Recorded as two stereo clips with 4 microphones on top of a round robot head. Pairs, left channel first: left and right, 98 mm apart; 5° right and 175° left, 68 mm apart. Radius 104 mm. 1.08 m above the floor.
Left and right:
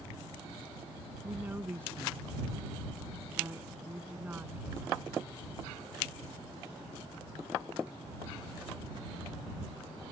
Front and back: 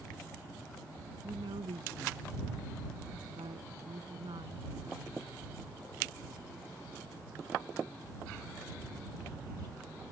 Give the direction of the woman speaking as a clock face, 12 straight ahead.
5 o'clock.